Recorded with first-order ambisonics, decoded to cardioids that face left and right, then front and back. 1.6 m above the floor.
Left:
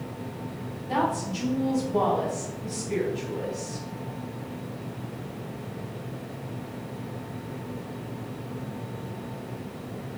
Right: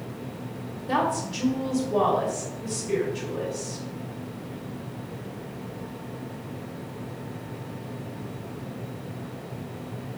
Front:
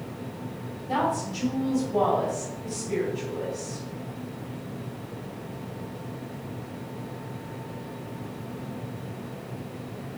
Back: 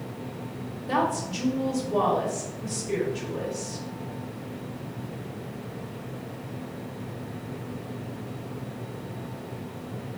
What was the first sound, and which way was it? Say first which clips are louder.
A woman speaking: right 1 dB, even; 135° right.